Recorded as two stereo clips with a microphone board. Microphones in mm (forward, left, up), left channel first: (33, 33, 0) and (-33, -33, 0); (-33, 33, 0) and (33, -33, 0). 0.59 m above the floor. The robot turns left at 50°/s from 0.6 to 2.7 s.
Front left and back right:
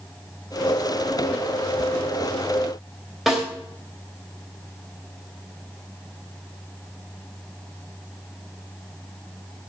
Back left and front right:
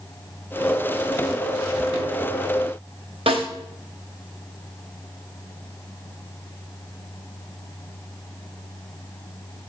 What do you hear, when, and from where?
3.3 s a snare drum: 45° right, 3 m